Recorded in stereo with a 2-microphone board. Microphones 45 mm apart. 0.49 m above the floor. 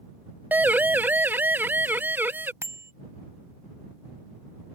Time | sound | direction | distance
0.5 | a siren | 45° right (ahead or behind) | ?
2.6 | a bicycle bell | 75° right (ahead or behind) | ?